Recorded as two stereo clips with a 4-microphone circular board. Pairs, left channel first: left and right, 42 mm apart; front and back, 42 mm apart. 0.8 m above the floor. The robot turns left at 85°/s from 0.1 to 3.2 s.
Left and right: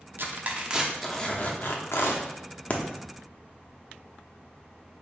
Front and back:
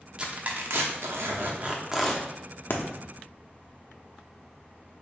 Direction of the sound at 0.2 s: 110° right.